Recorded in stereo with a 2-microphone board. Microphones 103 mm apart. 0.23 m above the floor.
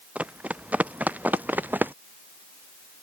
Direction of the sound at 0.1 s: 15° right (ahead or behind).